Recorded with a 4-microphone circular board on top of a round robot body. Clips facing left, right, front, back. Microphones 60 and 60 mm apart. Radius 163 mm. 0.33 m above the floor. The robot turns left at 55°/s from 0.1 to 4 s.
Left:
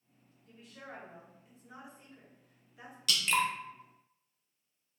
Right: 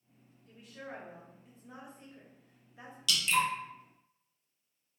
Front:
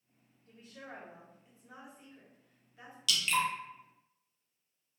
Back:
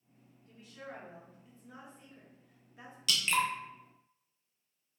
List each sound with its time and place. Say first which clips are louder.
0.5 s a woman speaking: right 3 dB, back 1 dB; straight ahead, 1.3 m; by 3.0 s 135° right, 1.3 m
3.1 s dripping: right 1 dB, back 1 dB; 135° left, 0.7 m; by 3.5 s 110° left, 0.7 m